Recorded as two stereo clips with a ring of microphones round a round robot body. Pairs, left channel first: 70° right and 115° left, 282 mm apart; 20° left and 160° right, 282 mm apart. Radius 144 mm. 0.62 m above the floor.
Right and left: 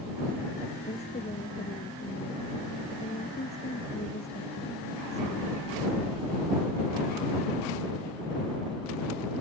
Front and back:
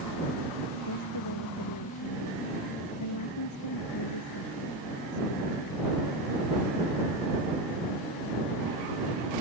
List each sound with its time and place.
0.9 s a woman speaking: straight ahead